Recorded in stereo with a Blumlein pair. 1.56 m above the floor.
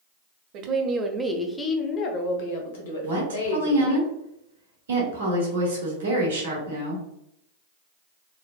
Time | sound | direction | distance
0.5 | a woman speaking | 40° right | 0.7 m
3.0 | a woman speaking | 65° right | 1.6 m